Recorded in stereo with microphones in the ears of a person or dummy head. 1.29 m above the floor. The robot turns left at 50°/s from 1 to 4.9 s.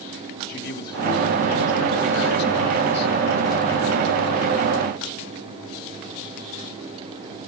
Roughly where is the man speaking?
Behind left.